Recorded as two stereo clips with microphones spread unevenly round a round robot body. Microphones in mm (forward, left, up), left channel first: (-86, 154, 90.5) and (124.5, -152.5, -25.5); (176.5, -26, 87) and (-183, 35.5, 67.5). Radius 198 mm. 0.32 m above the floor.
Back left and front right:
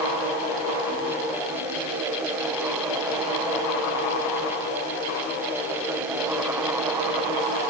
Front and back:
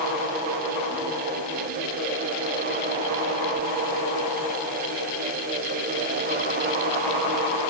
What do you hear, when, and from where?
Only background noise.